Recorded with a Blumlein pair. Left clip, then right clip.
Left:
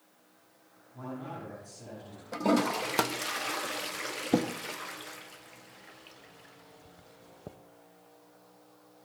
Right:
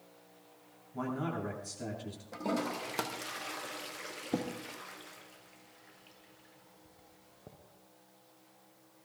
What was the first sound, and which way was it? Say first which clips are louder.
A man speaking: right 4 dB; 65° right.